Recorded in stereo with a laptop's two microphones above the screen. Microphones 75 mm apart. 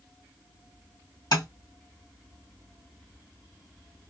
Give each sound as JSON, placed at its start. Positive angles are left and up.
{"t": 1.3, "sound": "tapping", "side_deg": 55, "distance_m": 0.8}